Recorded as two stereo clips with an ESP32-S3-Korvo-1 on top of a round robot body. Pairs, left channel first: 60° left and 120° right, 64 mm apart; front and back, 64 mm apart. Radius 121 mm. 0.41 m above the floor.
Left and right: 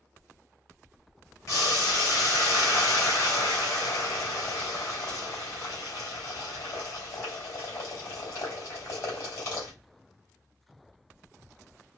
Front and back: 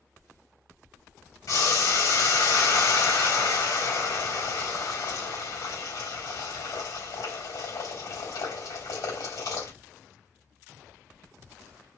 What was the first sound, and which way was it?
Boiling, 15° left.